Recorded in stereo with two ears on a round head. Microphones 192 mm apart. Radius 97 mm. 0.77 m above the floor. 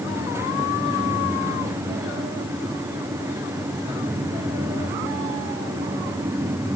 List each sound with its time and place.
Only background noise.